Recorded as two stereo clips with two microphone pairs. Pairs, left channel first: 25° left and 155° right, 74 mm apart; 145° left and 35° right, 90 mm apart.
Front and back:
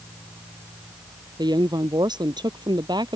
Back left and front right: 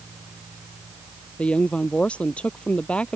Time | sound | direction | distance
1.4 | a woman speaking | 140° right | ?